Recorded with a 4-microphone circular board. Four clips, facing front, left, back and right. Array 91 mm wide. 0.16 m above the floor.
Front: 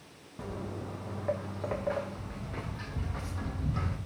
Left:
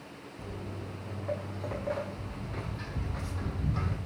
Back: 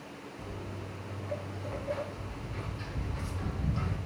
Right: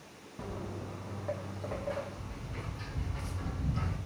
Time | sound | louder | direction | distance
0.4 | footsteps | right 2 dB, front 6 dB | 40° right | 0.7 m